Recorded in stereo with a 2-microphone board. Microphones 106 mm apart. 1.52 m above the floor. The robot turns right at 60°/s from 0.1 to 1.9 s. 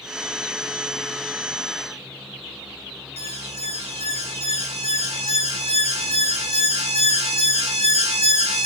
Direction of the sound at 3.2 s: 75° right (ahead or behind).